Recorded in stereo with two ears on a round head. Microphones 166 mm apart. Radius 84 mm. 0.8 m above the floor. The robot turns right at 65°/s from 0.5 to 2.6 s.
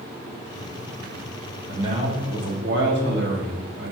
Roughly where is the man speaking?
Behind.